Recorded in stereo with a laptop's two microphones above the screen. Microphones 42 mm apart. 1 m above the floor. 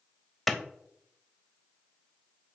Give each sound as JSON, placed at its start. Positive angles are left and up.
{"t": 0.5, "sound": "a clap", "side_deg": 5, "distance_m": 0.5}